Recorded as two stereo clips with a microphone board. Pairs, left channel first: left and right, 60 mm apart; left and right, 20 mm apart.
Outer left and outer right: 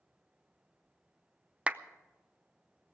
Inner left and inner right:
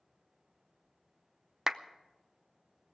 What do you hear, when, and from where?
1.7 s a clap: 20° right (ahead or behind), 0.6 m